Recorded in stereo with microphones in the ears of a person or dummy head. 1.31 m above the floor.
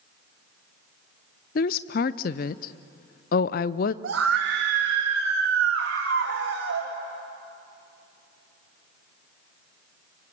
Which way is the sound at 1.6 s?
50° left (ahead or behind).